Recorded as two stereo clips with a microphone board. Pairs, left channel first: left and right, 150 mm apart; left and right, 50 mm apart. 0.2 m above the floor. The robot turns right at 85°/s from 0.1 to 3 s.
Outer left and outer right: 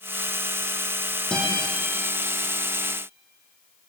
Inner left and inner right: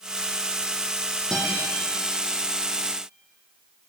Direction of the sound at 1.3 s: 5° left (ahead or behind).